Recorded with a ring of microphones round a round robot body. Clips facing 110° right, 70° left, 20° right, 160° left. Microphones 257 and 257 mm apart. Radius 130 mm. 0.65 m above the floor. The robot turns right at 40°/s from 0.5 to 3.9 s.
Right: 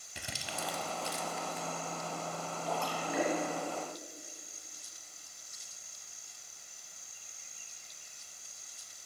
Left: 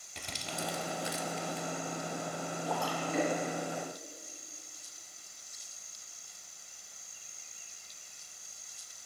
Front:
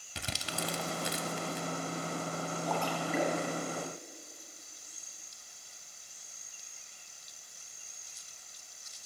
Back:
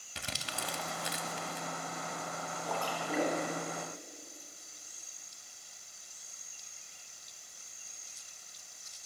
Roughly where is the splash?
Ahead right.